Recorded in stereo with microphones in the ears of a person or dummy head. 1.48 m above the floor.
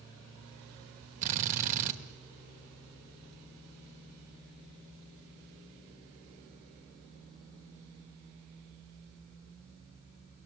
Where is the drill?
45° right (ahead or behind), 2.0 m.